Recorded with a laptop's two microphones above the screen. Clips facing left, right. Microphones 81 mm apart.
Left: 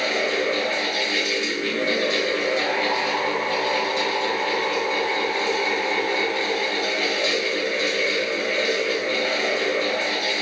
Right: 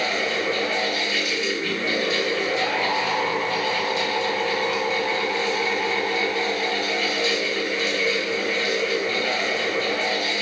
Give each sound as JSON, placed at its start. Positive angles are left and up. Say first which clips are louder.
{"t": 0.0, "sound": "a fan", "louder": "left 2 dB", "side_deg": 55, "distance_m": 1.2}